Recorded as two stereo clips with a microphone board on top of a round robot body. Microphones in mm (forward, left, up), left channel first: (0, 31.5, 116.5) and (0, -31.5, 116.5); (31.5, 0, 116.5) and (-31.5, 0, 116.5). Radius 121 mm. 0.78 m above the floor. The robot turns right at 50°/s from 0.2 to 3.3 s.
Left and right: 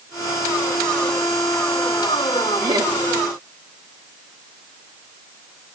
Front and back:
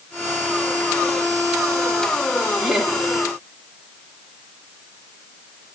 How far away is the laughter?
About 1.6 m.